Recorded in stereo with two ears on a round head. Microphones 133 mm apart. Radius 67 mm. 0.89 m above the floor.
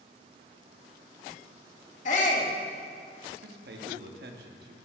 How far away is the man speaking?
About 1.1 m.